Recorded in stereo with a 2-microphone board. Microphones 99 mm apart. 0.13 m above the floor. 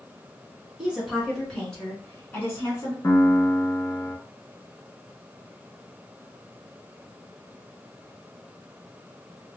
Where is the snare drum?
No snare drum in this recording.